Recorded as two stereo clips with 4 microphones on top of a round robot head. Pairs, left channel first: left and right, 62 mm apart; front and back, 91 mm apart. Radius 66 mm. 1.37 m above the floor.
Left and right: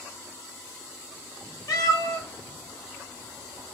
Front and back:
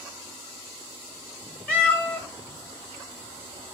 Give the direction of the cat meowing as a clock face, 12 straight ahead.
10 o'clock.